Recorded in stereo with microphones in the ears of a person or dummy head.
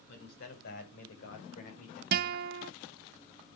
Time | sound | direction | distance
0.1 | a man speaking | 65° left (ahead or behind) | 3 m
2.1 | a guitar | 60° right (ahead or behind) | 0.6 m